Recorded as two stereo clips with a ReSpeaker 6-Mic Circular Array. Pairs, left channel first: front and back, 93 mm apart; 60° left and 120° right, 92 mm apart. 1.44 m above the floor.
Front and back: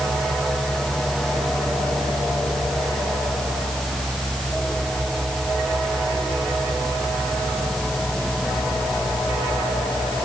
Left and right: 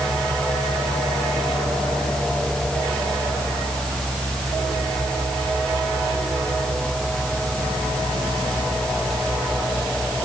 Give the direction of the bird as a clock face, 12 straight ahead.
No bird in this recording.